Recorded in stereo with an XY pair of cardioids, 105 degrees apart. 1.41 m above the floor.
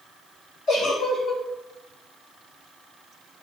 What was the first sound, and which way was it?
A giggle, 70° left.